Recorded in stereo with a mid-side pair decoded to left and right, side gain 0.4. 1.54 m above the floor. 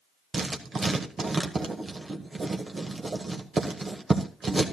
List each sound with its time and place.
0.3 s writing: 40° right, 1.7 m